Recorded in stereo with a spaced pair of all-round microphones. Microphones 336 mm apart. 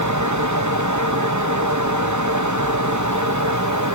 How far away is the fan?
About 1.4 m.